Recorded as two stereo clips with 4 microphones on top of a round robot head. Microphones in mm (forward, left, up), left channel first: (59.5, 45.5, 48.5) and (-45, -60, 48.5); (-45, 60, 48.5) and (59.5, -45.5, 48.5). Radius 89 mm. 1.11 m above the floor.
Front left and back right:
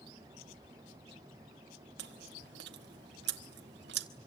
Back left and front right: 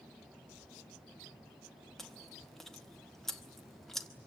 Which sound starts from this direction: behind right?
Chewing, at 2.0 s.